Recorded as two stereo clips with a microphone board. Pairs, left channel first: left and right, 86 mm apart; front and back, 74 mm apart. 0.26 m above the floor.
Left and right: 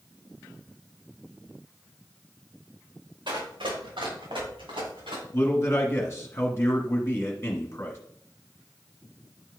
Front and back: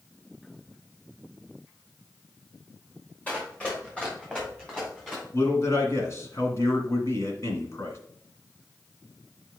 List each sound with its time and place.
3.3 s running footsteps: 70° right, 3.5 m; by 5.2 s 80° right, 5.5 m
5.3 s a man speaking: 35° left, 1.8 m